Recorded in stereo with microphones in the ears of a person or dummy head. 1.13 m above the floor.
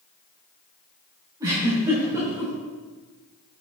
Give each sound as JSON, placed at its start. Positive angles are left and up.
{"t": 1.4, "sound": "a giggle", "side_deg": -20, "distance_m": 3.0}